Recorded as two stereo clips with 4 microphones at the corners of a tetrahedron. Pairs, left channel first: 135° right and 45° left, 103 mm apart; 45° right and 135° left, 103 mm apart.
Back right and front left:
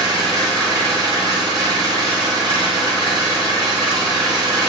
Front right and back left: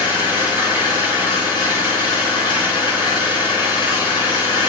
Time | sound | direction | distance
0.0 | an engine running | 5° right | 4 m